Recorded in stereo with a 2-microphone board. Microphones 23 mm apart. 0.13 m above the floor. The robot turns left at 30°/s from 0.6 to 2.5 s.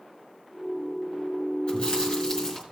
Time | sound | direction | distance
1.7 | chewing | 45° left (ahead or behind) | 4 m